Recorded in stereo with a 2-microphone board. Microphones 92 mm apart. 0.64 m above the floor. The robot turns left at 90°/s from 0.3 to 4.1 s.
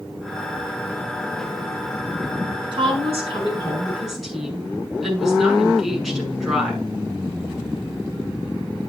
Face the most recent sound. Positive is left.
turn(degrees=180)